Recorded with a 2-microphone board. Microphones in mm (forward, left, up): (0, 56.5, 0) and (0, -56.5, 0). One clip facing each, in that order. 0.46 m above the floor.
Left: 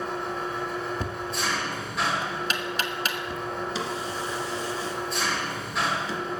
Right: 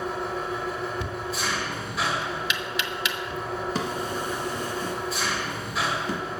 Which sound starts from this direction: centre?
An engine running, at 0.0 s.